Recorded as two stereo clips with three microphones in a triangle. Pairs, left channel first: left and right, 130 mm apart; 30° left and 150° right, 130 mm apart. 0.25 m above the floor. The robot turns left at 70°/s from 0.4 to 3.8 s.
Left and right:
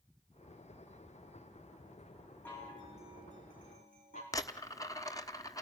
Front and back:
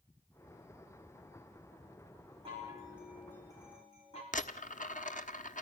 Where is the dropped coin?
30° left, 1.1 m.